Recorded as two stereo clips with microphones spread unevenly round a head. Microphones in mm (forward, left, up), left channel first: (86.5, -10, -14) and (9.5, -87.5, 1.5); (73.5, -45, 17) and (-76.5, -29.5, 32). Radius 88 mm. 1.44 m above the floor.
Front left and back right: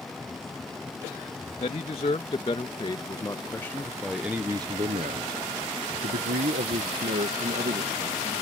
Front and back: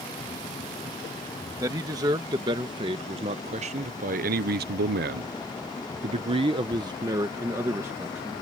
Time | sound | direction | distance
1.6 | a man speaking | 100° left | ?